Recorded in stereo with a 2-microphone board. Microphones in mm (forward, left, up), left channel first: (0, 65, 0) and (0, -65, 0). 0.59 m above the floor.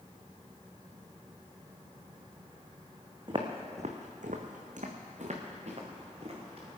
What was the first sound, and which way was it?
Footsteps, 40° right (ahead or behind).